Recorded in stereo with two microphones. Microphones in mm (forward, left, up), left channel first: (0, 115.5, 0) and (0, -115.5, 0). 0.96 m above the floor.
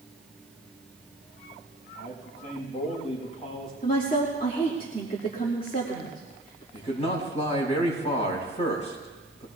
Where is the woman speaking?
35° left (ahead or behind), 2.5 m.